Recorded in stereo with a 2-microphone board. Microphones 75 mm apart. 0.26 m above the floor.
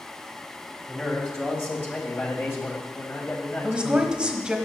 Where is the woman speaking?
15° right (ahead or behind), 1.1 m.